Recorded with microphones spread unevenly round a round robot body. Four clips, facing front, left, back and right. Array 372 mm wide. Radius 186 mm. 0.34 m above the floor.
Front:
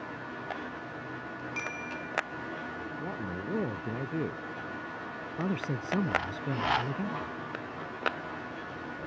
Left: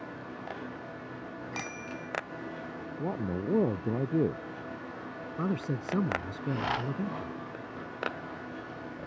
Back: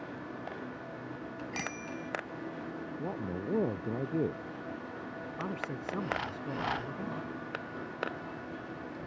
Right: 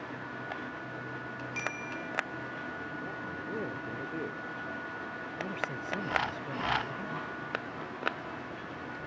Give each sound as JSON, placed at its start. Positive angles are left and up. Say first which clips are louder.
{"t": 1.5, "sound": "a bicycle bell", "louder": "right 2 dB, even", "azimuth_deg": 160}
{"t": 3.0, "sound": "a man speaking", "louder": "left 6 dB, back 2 dB", "azimuth_deg": 80}
{"t": 5.4, "sound": "a man speaking", "louder": "left 6 dB, front 6 dB", "azimuth_deg": 50}